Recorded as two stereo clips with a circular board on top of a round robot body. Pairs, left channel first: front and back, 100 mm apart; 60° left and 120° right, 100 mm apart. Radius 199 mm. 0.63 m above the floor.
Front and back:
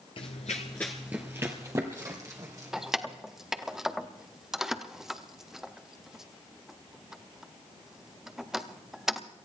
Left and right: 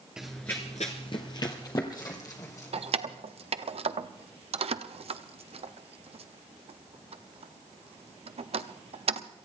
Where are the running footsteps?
35° right, 0.9 m; by 3.2 s 120° left, 3.5 m.